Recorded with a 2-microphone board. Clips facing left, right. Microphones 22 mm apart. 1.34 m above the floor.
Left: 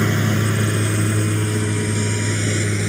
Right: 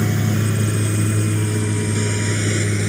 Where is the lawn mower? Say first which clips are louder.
Left 2 dB; 35° left (ahead or behind); by 2.9 s 5° left (ahead or behind).